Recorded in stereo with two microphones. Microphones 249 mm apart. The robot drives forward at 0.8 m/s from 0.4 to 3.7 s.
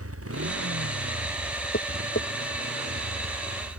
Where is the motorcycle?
70° right (ahead or behind); by 3.8 s 65° right (ahead or behind).